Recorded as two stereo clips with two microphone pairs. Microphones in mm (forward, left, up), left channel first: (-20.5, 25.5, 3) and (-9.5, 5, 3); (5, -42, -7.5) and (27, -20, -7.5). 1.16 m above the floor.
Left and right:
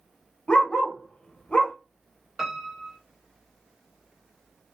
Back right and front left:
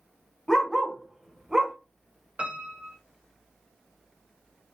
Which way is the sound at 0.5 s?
150° left.